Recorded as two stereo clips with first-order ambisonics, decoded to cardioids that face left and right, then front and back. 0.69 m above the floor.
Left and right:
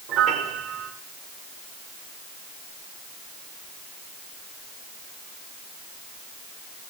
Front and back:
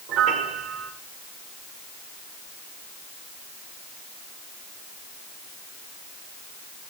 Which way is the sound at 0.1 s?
135° right.